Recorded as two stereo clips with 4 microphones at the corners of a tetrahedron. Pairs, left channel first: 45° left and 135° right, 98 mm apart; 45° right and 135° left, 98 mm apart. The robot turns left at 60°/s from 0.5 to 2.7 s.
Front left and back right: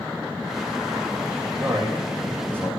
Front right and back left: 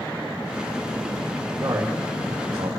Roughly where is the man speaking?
Behind.